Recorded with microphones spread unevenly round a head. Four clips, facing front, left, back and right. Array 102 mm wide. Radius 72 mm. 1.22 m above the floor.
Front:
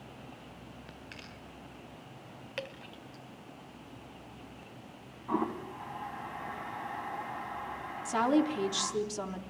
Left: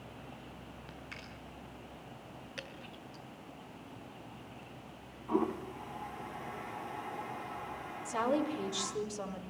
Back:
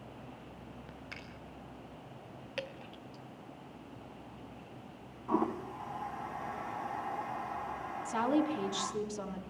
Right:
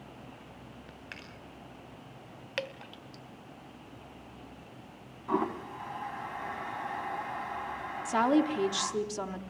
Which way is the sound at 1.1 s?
140° right.